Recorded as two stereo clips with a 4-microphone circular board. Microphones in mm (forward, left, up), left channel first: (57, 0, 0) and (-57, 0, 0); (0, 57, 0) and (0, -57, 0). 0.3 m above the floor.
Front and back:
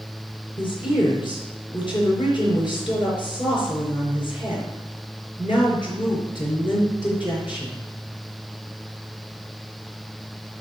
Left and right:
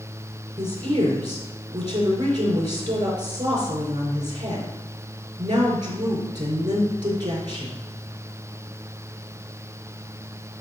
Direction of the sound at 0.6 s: 45° right.